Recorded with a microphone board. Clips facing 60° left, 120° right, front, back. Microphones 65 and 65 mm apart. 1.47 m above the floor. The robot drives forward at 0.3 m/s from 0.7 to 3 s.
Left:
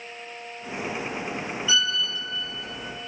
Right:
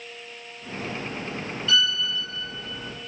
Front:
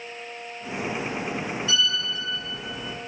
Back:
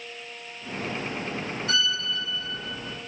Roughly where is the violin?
Behind left.